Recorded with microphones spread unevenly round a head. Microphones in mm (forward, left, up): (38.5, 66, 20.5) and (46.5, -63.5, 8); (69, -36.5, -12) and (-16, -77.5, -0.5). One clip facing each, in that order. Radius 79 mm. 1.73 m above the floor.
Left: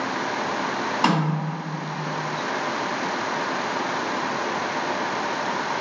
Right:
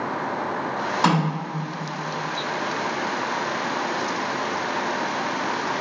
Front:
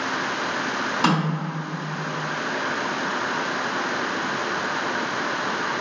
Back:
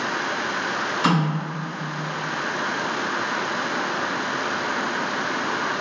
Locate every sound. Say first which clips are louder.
1.0 s a snare drum: right 1 dB, back 1 dB; 15° left, 1.7 m